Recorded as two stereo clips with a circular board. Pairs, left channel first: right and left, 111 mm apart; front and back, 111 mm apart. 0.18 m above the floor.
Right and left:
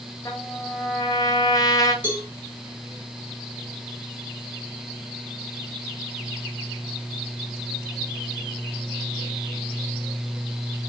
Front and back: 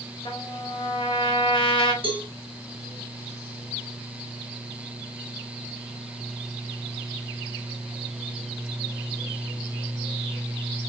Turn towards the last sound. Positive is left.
turn(degrees=155)